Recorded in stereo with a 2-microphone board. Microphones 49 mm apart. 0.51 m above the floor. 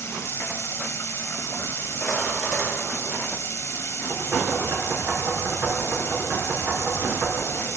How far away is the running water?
About 1.1 m.